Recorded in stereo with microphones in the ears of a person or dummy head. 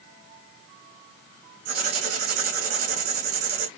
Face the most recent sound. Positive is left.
turn(degrees=-50)  # may be behind; listen again after turning